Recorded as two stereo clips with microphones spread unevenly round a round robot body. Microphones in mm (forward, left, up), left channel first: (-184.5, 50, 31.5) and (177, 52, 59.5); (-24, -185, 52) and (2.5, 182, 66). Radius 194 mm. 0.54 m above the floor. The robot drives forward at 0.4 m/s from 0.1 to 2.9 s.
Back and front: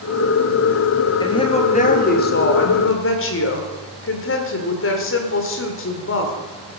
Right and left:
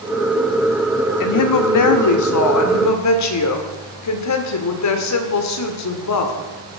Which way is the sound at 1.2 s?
105° right.